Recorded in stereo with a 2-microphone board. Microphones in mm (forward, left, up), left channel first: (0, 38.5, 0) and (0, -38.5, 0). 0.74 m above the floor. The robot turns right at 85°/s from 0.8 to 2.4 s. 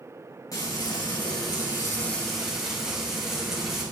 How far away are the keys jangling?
No keys jangling in this recording.